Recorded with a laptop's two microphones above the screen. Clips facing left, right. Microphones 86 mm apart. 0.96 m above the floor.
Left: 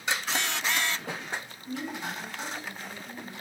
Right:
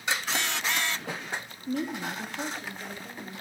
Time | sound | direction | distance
1.7 | a woman speaking | 40° right (ahead or behind) | 0.9 m